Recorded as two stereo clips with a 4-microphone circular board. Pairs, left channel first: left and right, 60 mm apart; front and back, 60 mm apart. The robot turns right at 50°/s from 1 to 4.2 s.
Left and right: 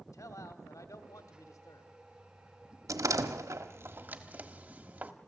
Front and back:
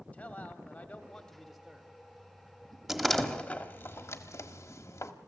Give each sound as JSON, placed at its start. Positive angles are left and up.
{"t": 0.1, "sound": "a man speaking", "azimuth_deg": 65, "distance_m": 1.8}
{"t": 2.9, "sound": "a door slam", "azimuth_deg": -90, "distance_m": 1.4}